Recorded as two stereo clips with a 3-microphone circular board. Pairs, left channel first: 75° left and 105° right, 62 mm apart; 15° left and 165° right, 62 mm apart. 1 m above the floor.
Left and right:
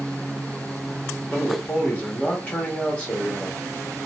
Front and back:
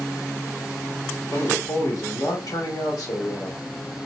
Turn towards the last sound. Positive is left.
turn(degrees=5)